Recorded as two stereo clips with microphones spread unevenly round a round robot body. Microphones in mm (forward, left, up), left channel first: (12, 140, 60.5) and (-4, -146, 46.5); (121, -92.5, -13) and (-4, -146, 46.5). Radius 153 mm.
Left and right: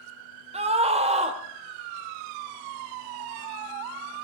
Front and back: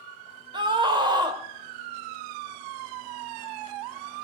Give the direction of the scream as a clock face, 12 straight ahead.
3 o'clock.